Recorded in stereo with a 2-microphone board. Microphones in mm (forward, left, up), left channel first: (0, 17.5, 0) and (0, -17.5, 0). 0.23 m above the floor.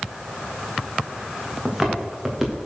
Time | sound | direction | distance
1.6 | footsteps | 10° right (ahead or behind) | 3 m